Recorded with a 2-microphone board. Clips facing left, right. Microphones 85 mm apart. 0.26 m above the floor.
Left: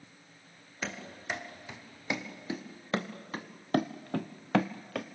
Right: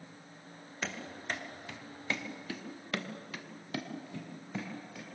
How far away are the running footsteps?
About 4 m.